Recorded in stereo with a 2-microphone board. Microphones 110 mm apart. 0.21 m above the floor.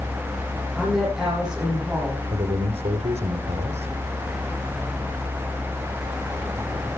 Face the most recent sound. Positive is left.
turn(degrees=-75)  # may be behind; listen again after turning